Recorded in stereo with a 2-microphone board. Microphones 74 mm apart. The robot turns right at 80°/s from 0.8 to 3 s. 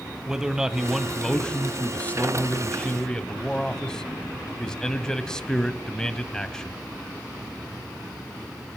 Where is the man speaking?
10° right (ahead or behind), 1.1 m; by 6.8 s 10° left (ahead or behind), 1.1 m.